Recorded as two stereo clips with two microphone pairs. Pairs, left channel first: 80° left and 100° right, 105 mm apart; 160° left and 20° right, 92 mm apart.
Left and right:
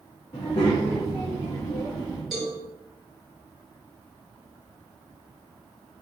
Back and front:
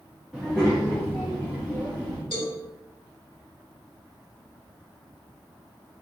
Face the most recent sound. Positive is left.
turn(degrees=170)